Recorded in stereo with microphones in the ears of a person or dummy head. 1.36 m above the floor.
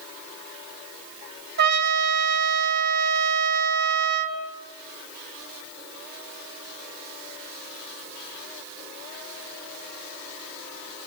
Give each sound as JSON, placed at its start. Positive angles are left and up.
{"t": 1.6, "sound": "a trumpet", "side_deg": -55, "distance_m": 2.0}